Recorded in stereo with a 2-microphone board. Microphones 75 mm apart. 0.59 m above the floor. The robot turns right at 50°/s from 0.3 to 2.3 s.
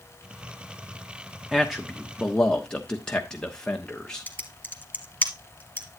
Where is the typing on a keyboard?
20° left (ahead or behind), 1.7 m.